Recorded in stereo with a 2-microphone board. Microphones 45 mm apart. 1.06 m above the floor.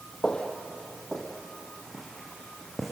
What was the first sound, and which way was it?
Footsteps, 20° left (ahead or behind).